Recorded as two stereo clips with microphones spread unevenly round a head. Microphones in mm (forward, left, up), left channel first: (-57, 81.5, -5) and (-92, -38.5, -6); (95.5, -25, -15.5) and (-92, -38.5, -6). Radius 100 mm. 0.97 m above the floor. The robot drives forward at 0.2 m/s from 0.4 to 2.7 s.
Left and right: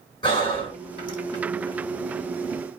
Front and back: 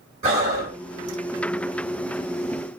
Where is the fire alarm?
No fire alarm in this recording.